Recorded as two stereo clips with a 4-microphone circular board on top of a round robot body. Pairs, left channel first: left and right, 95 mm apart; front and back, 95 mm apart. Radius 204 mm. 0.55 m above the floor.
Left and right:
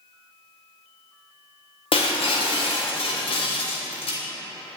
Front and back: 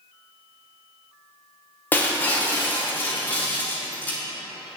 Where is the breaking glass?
70° left, 1.0 m.